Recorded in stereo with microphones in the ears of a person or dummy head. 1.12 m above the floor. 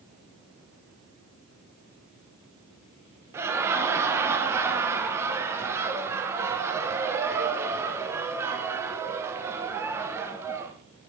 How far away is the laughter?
About 1.0 m.